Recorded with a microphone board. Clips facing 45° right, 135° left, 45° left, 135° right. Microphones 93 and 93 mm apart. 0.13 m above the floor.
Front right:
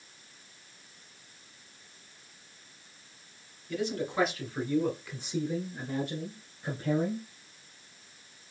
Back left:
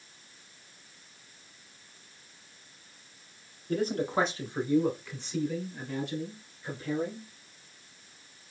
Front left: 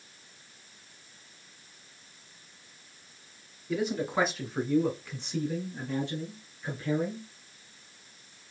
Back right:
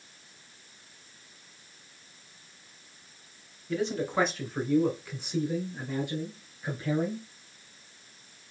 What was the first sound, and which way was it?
A man speaking, 125° left.